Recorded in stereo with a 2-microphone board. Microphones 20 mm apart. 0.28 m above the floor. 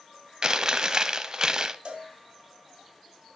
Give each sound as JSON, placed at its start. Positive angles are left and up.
{"t": 0.4, "sound": "chewing", "side_deg": -30, "distance_m": 0.6}
{"t": 1.9, "sound": "a cowbell", "side_deg": -50, "distance_m": 1.6}